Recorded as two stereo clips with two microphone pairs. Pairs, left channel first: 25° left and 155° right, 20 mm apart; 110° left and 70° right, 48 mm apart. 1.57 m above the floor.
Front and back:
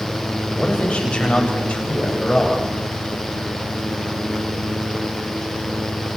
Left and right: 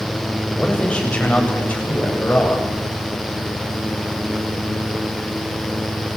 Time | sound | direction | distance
0.6 | a man speaking | 40° left | 7 m